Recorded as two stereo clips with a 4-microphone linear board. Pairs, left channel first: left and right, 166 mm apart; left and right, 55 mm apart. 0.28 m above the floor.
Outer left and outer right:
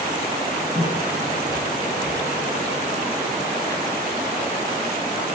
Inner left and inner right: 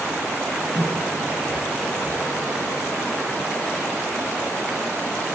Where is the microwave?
25° left (ahead or behind), 5.5 m.